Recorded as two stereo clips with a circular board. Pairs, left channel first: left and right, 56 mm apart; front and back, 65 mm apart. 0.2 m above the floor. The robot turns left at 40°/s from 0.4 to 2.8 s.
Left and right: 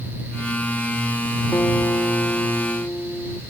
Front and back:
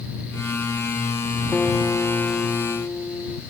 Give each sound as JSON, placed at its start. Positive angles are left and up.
{"t": 1.5, "sound": "a guitar", "azimuth_deg": 85}